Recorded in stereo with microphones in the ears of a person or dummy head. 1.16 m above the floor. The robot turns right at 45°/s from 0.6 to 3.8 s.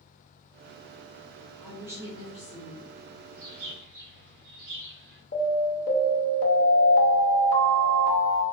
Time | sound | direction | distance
1.6 | a woman speaking | straight behind | 0.6 m
3.4 | a bird | 70° right (ahead or behind) | 1.0 m
5.3 | an alarm | 40° left (ahead or behind) | 0.7 m